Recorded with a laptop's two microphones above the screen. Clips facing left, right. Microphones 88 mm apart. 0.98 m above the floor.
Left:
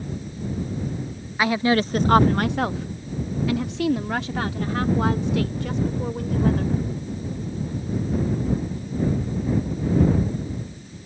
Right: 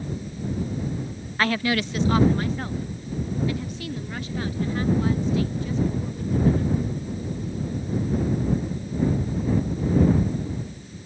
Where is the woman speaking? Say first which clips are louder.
Left 3 dB; 10° left (ahead or behind); by 6.8 s 75° left (ahead or behind).